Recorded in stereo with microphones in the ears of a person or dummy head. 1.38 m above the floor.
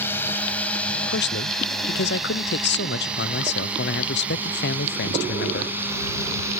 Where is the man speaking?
55° left (ahead or behind).